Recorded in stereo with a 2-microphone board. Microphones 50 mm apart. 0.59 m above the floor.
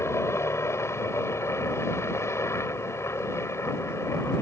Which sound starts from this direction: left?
A helicopter, at 0.0 s.